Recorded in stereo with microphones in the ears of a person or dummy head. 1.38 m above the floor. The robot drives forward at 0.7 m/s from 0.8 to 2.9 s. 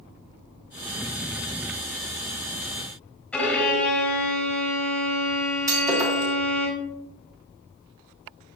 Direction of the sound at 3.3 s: 10° left (ahead or behind).